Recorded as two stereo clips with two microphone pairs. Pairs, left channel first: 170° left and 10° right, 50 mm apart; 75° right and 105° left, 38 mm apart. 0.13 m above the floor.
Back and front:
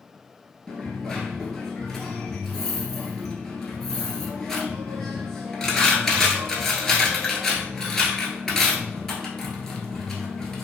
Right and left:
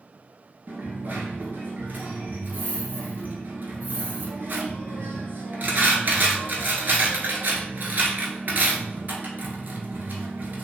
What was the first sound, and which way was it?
A dropped coin, 95° left.